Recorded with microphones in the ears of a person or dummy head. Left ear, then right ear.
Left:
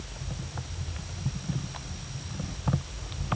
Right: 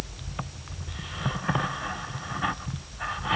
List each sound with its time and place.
Only background noise.